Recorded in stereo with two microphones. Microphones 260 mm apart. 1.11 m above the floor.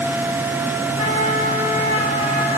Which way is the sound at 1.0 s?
70° right (ahead or behind).